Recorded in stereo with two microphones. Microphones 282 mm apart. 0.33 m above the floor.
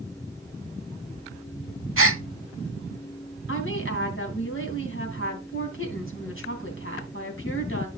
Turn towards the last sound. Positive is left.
turn(degrees=45)  # may be behind; listen again after turning